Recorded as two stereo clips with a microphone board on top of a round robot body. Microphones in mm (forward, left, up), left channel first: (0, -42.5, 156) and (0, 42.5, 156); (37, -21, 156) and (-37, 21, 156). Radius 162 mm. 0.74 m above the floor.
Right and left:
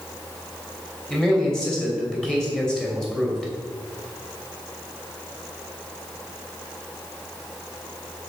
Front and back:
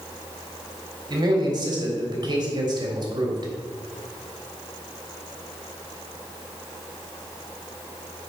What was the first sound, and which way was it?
A man speaking, 170° right.